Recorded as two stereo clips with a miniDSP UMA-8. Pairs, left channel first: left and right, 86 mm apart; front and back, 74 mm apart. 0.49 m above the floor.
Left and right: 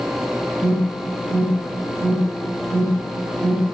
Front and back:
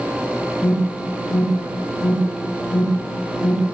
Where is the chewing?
No chewing in this recording.